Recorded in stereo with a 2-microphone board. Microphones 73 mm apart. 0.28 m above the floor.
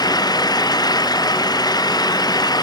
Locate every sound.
0.0 s an engine running: 65° left (ahead or behind)